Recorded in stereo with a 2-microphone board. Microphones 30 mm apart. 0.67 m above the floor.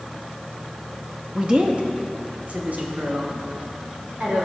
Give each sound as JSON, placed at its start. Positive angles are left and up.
{"t": 1.4, "sound": "a woman speaking", "side_deg": -25, "distance_m": 0.6}